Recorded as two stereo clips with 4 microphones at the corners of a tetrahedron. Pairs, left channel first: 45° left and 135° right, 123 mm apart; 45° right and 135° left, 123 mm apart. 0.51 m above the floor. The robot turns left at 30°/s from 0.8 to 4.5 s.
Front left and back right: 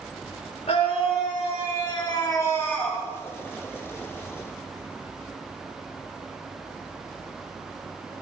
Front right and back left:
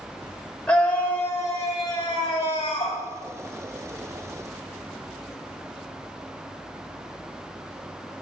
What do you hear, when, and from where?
0.7 s a scream: 35° left, 1.7 m; by 3.0 s 30° right, 1.7 m